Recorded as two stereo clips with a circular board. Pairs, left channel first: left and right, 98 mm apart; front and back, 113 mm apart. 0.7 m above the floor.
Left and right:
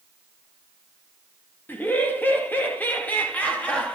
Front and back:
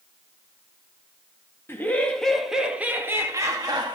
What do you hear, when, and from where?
1.7 s laughter: 45° left, 1.2 m; by 4.0 s 160° left, 1.5 m